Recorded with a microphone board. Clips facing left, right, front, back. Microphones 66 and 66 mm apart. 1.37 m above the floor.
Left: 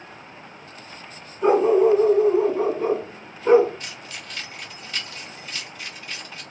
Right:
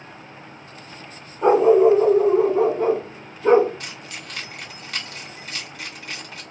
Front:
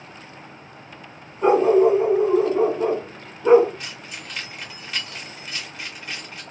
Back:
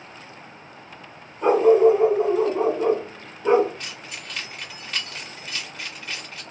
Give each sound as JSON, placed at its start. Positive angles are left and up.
{"t": 1.4, "sound": "a dog barking", "azimuth_deg": -80, "distance_m": 2.5}
{"t": 3.8, "sound": "keys jangling", "azimuth_deg": -85, "distance_m": 2.0}